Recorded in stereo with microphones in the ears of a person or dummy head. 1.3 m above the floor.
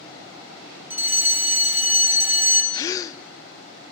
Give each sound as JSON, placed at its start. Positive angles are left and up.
{"t": 0.9, "sound": "a fire alarm", "side_deg": -10, "distance_m": 3.0}
{"t": 2.7, "sound": "a gasp", "side_deg": 20, "distance_m": 0.6}